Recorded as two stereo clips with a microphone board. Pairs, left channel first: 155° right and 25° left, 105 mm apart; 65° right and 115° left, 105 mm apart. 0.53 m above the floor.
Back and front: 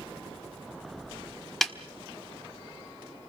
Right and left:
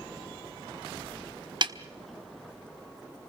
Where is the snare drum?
115° left, 1.3 m.